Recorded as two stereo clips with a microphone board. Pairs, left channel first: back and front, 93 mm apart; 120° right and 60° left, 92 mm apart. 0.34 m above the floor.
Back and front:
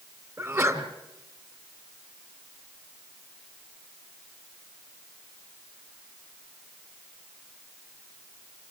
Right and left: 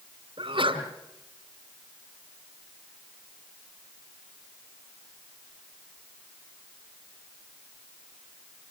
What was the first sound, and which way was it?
A sneeze, 60° left.